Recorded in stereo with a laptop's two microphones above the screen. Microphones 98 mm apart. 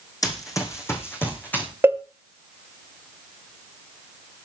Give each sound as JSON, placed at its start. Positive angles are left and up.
{"t": 0.2, "sound": "running footsteps", "side_deg": 40, "distance_m": 2.5}
{"t": 1.8, "sound": "a cowbell", "side_deg": -25, "distance_m": 1.0}